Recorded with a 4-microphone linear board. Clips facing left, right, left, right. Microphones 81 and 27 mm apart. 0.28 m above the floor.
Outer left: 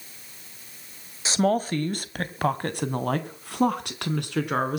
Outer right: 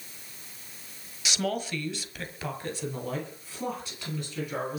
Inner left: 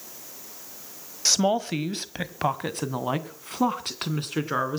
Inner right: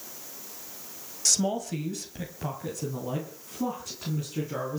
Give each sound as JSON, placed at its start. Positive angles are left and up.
{"t": 1.2, "sound": "a woman speaking", "side_deg": 30, "distance_m": 1.3}